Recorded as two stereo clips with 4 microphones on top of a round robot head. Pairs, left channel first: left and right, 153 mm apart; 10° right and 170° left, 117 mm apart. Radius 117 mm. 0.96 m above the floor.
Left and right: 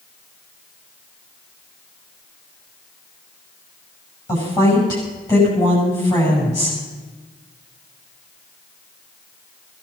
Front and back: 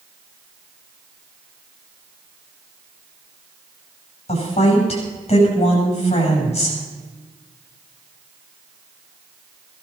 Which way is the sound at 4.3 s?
25° left.